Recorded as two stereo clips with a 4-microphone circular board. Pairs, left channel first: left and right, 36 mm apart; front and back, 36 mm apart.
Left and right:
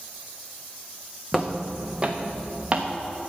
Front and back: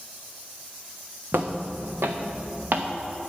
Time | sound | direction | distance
1.3 | footsteps | straight behind | 1.6 m